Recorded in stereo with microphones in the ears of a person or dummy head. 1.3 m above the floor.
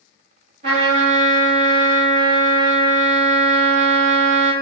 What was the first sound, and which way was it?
A trumpet, 35° right (ahead or behind).